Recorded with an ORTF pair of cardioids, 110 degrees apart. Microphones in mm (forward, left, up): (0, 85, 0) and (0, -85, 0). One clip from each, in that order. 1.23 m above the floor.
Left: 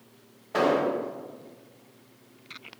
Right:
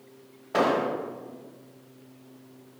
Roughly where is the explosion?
Ahead.